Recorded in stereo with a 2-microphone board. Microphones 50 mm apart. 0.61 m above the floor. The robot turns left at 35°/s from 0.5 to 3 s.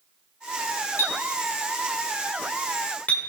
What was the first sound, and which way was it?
A clink, 70° left (ahead or behind).